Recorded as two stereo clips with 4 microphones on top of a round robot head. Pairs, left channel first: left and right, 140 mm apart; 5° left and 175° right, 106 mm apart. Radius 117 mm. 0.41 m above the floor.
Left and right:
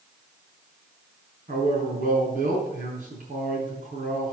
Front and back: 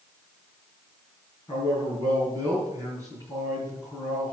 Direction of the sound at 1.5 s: 65° right.